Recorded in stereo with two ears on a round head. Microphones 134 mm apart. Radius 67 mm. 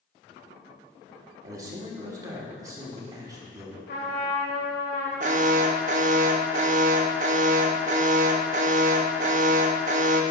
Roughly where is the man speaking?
Right.